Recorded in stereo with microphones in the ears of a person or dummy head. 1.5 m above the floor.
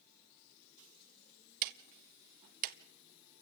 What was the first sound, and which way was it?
Ticking, 50° right (ahead or behind).